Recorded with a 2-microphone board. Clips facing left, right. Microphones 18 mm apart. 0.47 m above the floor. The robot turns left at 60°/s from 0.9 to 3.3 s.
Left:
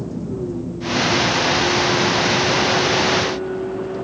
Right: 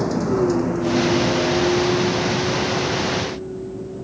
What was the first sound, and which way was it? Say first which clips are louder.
A vehicle: right 7 dB; 60° right (ahead or behind).